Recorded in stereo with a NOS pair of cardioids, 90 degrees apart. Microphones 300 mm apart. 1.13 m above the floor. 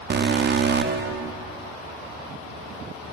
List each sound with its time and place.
0.1 s an alarm: 35° right, 0.8 m